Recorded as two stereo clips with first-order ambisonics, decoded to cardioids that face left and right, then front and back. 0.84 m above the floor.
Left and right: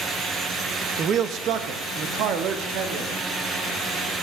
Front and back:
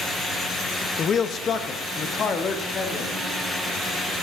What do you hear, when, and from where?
1.0 s a man speaking: 45° right, 0.5 m; by 3.1 s 65° right, 1.7 m